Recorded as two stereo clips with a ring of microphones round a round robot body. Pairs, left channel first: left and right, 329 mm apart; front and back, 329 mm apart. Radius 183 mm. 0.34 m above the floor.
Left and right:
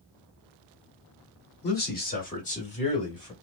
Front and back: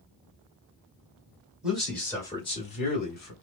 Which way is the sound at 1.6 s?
95° left.